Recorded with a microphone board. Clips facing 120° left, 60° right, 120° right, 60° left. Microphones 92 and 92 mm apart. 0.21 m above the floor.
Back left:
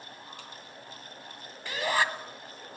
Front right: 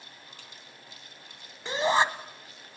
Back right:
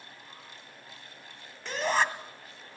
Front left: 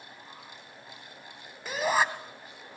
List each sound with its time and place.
1.6 s a shout: 15° right, 1.6 m